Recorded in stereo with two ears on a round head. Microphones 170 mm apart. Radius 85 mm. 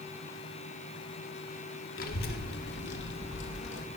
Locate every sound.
2.0 s a child speaking: 50° left (ahead or behind), 1.4 m; by 3.8 s 70° left (ahead or behind), 2 m